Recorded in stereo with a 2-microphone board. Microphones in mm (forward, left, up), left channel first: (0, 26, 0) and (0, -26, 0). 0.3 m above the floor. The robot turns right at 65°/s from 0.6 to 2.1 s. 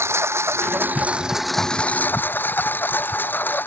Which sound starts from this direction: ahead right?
A lawn mower, at 0.0 s.